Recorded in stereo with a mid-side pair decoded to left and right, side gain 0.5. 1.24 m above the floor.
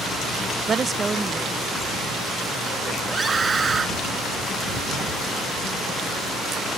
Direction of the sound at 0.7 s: 40° right.